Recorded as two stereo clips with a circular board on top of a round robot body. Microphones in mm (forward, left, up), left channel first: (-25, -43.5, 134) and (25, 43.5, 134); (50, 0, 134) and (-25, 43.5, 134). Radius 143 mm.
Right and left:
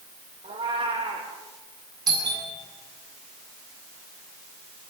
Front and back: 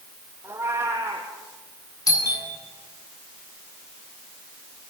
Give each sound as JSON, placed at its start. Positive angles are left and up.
{"t": 0.4, "sound": "a cat meowing", "azimuth_deg": 90, "distance_m": 5.0}
{"t": 2.1, "sound": "a doorbell", "azimuth_deg": 15, "distance_m": 9.0}